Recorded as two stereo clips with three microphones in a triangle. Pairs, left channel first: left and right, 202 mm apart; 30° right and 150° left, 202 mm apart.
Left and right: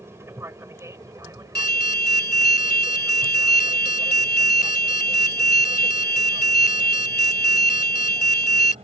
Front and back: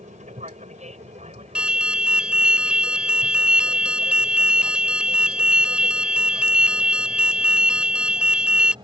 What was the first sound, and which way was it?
An aircraft, 165° right.